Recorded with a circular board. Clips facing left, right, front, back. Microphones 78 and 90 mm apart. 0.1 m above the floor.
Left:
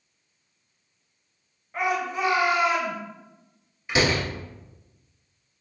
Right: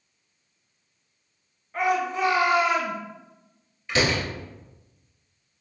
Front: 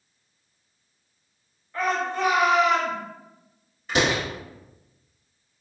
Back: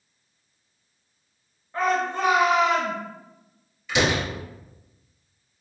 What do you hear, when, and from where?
1.7 s a shout: 170° left, 1.4 m
3.9 s a door slam: 20° left, 1.3 m